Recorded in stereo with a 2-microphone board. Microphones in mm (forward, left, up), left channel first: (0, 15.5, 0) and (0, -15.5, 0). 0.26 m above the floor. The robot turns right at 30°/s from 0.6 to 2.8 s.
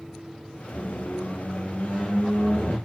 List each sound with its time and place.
0.7 s a squeak: 30° left, 1.6 m; by 2.8 s 90° left, 1.6 m